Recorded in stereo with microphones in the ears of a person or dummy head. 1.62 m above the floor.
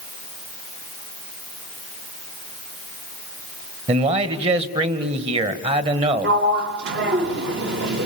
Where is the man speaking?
35° right (ahead or behind), 1.7 m.